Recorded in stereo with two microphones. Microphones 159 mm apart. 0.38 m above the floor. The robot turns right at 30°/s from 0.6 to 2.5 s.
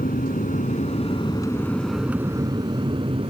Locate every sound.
0.0 s an aircraft: 60° left (ahead or behind); by 3.3 s 35° right (ahead or behind)